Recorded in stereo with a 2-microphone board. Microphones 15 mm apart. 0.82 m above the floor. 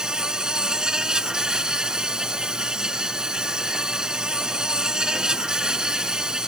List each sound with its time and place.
0.0 s an insect: 50° right (ahead or behind)